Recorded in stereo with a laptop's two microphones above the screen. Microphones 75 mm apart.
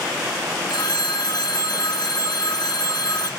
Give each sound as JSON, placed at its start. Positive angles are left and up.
{"t": 0.7, "sound": "a phone ringing", "side_deg": 70, "distance_m": 0.8}